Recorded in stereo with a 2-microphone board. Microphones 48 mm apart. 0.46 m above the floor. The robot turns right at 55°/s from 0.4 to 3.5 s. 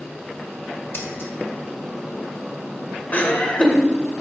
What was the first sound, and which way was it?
Scissors, 50° left (ahead or behind).